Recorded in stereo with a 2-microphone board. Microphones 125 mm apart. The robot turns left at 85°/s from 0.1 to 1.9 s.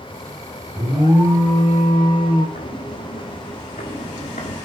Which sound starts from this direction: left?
Footsteps, at 2.5 s.